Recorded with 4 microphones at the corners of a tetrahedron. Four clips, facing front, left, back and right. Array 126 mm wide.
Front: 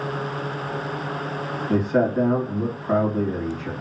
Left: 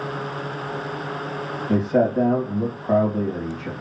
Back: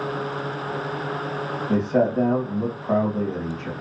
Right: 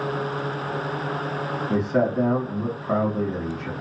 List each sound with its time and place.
1.7 s a man speaking: 105° left, 2.5 m